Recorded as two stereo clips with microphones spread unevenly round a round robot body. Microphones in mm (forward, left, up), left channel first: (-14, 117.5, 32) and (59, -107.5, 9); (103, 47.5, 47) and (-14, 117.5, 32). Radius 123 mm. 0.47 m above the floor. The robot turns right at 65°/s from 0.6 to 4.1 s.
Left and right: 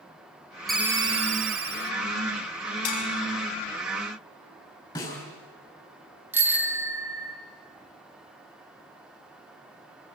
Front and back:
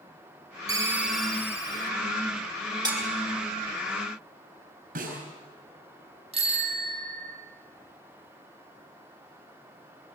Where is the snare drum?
Straight behind, 7 m.